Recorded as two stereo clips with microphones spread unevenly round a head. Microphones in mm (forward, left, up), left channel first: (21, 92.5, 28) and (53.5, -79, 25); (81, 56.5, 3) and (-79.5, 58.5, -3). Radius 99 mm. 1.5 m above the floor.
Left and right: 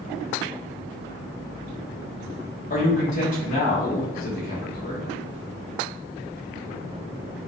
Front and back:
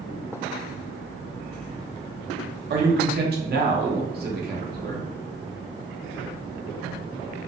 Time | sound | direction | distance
2.7 | a man speaking | 155° left | 0.8 m